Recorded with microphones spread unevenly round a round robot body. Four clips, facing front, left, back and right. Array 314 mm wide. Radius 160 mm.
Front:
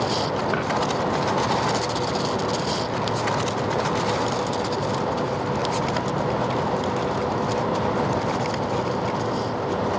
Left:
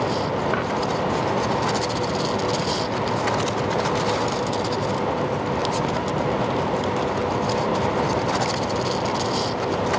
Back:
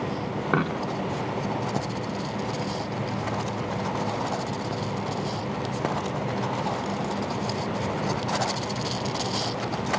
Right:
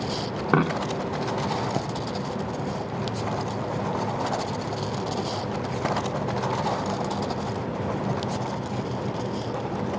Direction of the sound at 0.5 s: 115° right.